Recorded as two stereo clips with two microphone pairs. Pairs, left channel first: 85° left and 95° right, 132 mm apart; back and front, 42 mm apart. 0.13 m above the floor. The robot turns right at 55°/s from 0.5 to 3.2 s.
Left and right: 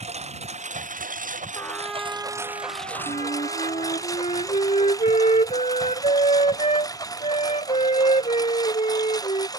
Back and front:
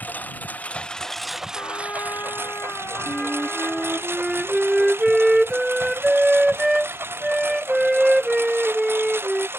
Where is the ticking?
I don't hear ticking.